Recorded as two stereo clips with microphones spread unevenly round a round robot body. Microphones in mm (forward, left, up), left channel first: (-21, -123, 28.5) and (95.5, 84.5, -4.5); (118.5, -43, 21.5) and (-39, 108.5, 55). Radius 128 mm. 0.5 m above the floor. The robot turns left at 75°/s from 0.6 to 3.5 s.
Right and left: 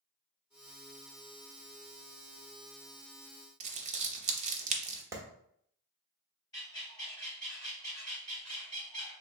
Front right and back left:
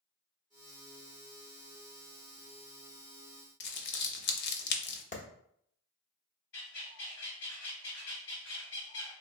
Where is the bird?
40° right, 2.0 m.